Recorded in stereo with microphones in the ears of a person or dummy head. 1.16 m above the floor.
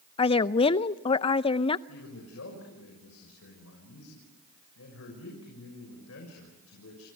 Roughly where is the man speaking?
Left.